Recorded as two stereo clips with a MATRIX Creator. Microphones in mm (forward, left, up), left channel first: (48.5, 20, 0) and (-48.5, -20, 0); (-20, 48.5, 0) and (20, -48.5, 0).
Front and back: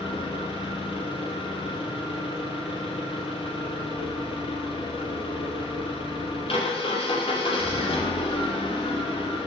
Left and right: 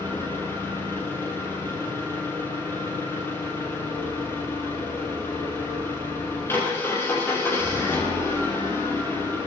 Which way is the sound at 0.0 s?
45° left.